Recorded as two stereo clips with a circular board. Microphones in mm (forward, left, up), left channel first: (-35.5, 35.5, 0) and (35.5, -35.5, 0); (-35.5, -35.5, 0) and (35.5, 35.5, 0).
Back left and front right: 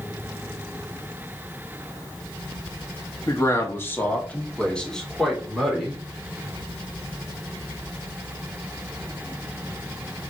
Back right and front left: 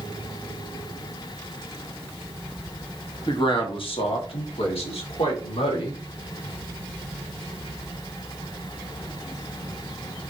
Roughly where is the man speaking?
Behind.